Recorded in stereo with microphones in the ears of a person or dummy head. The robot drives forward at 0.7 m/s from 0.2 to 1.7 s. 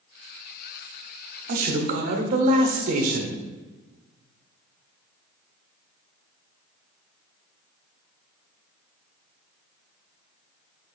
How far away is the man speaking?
About 0.7 m.